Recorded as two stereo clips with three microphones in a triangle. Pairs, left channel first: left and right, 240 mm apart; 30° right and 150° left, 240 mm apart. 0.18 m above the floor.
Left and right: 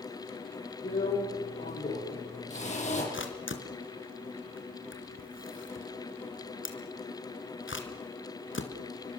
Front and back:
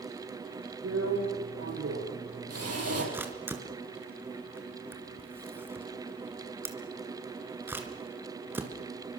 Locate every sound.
0.8 s a drill: 150° left, 7 m
3.1 s a camera shutter: 70° left, 3 m